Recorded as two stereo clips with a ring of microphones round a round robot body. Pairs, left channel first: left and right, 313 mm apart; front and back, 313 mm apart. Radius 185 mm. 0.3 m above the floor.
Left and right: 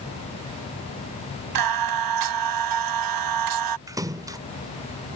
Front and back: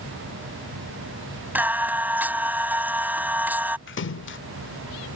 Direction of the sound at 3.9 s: 15° right.